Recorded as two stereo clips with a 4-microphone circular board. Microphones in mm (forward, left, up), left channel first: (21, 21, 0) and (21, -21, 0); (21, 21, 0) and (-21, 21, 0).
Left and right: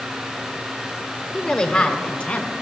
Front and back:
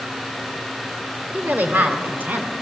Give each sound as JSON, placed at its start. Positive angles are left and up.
{"t": 1.3, "sound": "a woman speaking", "azimuth_deg": 165, "distance_m": 1.1}